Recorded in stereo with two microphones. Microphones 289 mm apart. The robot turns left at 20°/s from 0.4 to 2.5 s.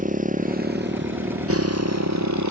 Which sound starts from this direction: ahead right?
A motorcycle, at 0.0 s.